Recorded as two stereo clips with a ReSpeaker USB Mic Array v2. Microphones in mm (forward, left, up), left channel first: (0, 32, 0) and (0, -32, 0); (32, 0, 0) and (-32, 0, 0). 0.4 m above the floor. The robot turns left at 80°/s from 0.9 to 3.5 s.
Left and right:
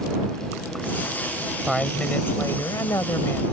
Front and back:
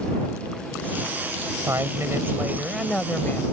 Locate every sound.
1.7 s a woman speaking: 175° right; by 3.4 s 45° left